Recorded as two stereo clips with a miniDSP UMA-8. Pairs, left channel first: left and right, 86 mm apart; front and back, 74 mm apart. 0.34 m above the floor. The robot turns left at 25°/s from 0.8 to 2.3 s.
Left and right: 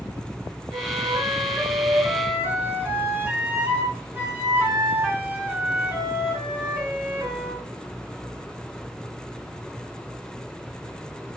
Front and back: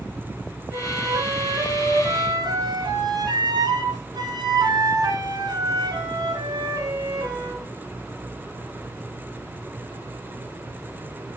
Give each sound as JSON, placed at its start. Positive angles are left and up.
{"t": 0.7, "sound": "a flute", "azimuth_deg": -115, "distance_m": 3.0}